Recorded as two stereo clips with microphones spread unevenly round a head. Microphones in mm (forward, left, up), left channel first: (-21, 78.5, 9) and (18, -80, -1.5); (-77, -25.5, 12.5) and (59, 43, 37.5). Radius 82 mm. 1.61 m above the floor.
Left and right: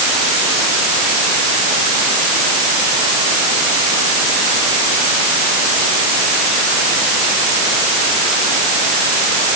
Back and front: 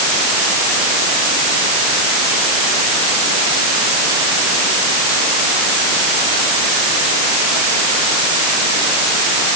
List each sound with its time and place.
Only background noise.